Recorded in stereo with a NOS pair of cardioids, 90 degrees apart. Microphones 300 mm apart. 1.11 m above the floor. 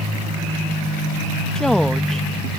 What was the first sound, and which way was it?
A woman speaking, straight ahead.